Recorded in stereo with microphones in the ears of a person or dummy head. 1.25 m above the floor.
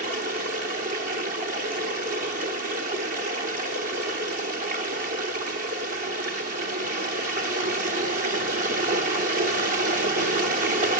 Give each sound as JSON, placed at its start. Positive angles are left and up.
{"t": 0.0, "sound": "running water", "side_deg": -30, "distance_m": 1.0}